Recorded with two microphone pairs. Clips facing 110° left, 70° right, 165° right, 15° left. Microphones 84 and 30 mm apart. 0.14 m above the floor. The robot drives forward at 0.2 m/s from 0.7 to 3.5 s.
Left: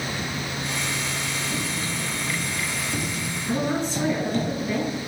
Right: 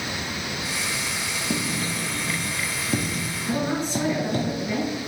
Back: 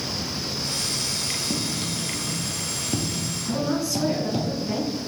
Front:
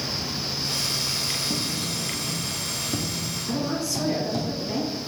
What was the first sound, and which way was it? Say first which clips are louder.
Writing: right 2 dB, even; 90° right.